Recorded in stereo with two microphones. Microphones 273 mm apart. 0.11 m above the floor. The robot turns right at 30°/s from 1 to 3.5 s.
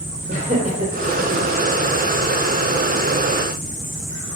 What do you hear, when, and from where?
0.3 s laughter: 25° right (ahead or behind), 3.5 m; by 1.4 s 15° right (ahead or behind), 3.5 m